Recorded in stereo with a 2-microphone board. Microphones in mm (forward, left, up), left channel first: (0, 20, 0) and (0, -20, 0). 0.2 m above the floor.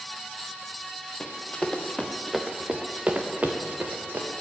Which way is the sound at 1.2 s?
30° left (ahead or behind).